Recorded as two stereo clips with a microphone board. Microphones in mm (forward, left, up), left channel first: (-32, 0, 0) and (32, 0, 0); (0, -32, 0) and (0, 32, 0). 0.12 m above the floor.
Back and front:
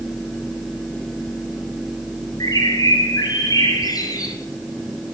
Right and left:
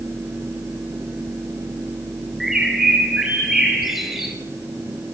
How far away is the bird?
About 3 m.